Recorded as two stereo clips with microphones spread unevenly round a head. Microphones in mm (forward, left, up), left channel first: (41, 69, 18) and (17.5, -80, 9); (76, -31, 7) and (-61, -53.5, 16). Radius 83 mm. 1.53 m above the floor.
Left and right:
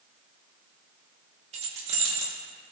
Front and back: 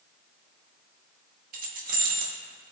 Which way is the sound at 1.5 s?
155° right.